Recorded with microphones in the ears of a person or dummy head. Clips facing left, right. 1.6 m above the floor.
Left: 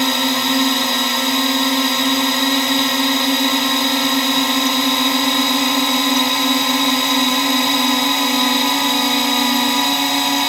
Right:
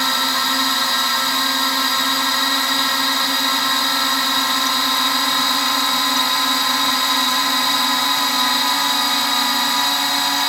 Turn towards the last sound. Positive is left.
turn(degrees=25)  # may be behind; listen again after turning